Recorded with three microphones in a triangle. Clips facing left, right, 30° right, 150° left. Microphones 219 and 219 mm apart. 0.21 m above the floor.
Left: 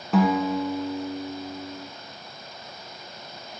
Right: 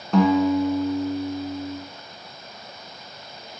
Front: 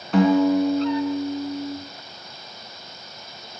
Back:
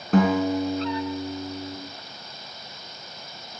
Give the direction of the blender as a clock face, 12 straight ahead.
No blender in this recording.